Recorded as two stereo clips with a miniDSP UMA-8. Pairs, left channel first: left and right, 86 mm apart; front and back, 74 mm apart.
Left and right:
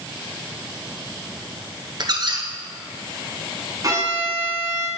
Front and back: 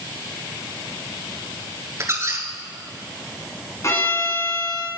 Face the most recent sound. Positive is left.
turn(degrees=-50)